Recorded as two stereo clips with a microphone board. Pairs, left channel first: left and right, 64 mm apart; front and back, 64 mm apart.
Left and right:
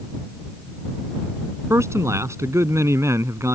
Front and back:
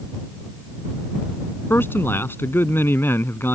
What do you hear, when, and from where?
1.7 s a man speaking: 50° right